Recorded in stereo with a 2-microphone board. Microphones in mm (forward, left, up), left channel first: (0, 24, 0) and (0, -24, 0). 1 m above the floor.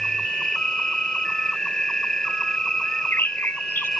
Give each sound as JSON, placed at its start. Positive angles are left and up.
{"t": 0.0, "sound": "an insect", "side_deg": 15}
{"t": 2.8, "sound": "a bird", "side_deg": 50}